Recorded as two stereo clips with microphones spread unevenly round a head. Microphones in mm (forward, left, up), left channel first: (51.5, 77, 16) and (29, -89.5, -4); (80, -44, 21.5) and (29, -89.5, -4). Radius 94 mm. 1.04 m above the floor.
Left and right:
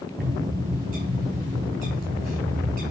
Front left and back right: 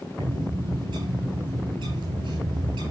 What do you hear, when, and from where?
0.2 s a bird: 150° right, 3.5 m